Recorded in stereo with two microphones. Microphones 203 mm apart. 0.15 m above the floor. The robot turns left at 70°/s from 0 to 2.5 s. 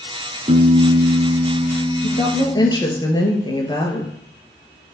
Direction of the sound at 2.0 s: 55° left.